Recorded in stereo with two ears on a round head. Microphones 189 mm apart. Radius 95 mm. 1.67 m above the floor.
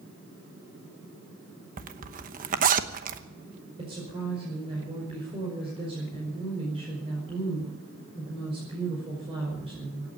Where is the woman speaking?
30° right (ahead or behind), 5 m.